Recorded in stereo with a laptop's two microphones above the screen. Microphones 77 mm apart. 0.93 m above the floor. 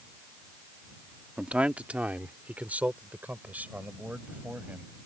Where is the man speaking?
15° right (ahead or behind); by 4.9 s 25° right (ahead or behind).